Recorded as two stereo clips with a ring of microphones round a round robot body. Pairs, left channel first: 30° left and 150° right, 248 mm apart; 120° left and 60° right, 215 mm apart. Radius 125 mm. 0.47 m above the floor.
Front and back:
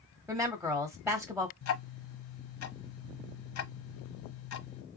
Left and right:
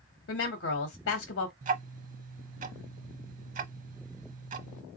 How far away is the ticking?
About 1.0 m.